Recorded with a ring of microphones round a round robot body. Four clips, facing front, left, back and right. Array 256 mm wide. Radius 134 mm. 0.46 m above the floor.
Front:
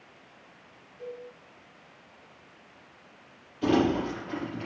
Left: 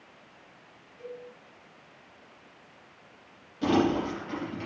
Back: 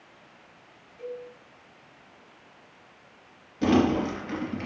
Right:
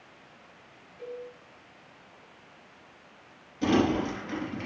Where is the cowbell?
170° right, 5.5 m.